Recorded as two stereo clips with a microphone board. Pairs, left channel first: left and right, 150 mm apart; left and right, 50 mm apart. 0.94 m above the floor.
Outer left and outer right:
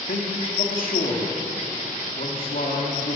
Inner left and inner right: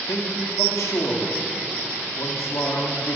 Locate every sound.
0.1 s a man speaking: 70° left (ahead or behind), 2 m